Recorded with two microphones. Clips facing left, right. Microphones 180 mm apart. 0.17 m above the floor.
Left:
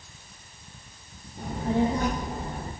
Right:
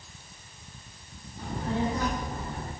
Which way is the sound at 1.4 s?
50° left (ahead or behind).